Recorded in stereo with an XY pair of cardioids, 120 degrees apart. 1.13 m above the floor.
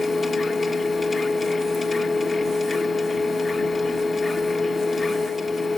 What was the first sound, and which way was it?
A machine running, 30° left.